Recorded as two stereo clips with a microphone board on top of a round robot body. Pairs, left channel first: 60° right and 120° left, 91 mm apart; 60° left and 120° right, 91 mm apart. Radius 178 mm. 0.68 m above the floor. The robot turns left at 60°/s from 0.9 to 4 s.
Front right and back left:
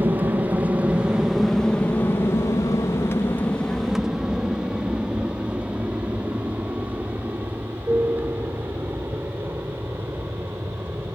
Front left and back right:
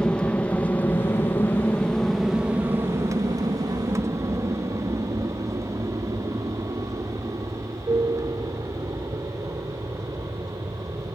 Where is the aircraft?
120° left; by 11.2 s 175° right.